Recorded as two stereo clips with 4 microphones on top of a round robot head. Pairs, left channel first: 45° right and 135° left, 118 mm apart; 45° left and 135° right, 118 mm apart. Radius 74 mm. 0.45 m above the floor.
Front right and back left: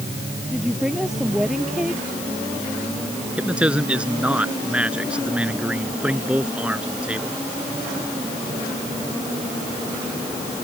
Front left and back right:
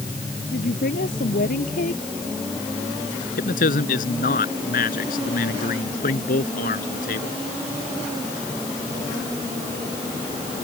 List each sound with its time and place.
0.5 s a woman speaking: 50° left
3.4 s a man speaking: 55° left